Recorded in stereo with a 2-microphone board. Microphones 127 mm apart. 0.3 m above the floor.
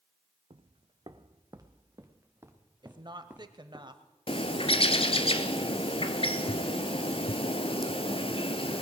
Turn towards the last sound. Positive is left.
turn(degrees=50)  # may be behind; listen again after turning